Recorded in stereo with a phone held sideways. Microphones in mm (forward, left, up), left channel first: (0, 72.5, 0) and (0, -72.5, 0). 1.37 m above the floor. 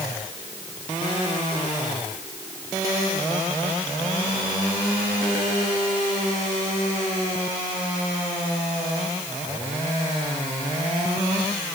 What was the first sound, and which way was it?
Only background noise.